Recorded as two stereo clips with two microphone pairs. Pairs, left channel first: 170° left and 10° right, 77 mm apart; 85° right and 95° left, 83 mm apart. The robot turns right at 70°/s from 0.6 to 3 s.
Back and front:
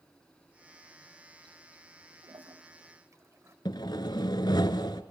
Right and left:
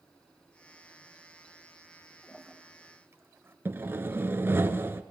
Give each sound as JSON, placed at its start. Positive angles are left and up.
{"t": 2.2, "sound": "a toilet flushing", "azimuth_deg": -15, "distance_m": 1.0}
{"t": 3.6, "sound": "sawing", "azimuth_deg": 150, "distance_m": 1.1}